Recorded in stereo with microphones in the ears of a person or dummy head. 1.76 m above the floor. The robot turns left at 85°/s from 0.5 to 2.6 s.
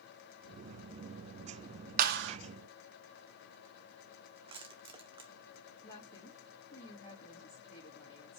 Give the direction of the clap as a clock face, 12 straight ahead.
2 o'clock.